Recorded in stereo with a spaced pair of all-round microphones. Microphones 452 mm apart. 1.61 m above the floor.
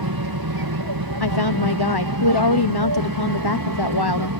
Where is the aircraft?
55° right (ahead or behind); by 4.4 s 50° right (ahead or behind).